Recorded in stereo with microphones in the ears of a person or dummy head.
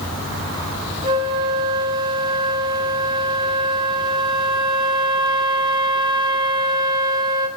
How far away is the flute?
About 2 m.